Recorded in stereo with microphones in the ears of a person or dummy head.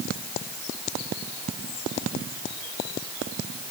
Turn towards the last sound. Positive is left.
No sound to turn to.